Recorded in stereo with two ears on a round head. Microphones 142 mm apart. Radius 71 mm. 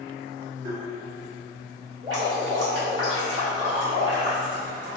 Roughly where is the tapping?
Right.